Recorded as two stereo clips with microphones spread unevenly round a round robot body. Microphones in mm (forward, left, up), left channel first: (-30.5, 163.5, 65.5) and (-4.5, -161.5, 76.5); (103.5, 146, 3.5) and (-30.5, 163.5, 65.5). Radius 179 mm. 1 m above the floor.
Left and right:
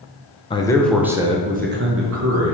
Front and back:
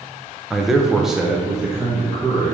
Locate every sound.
0.5 s a man speaking: 40° left, 0.9 m; by 2.5 s 80° right, 1.2 m